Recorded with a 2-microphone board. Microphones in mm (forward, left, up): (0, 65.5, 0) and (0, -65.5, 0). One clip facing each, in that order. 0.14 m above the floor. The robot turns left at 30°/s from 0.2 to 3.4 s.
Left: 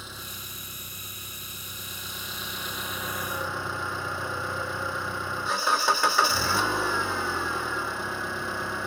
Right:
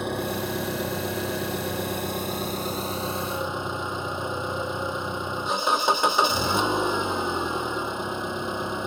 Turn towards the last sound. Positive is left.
turn(degrees=-160)